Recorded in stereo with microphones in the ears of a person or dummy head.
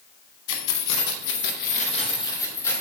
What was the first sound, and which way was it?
Keys jangling, 65° left (ahead or behind).